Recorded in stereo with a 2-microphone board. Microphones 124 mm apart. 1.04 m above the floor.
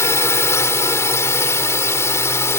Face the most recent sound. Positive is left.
turn(degrees=20)  # may be behind; listen again after turning